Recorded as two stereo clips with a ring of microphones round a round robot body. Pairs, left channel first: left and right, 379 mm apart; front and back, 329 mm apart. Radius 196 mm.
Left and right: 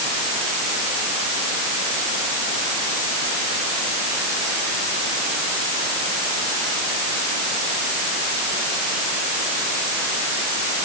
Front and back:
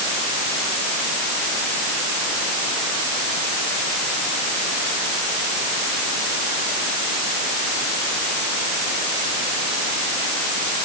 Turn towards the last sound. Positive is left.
No sound to turn to.